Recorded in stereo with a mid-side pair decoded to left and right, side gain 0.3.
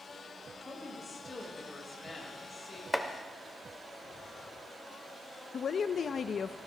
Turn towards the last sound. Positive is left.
turn(degrees=65)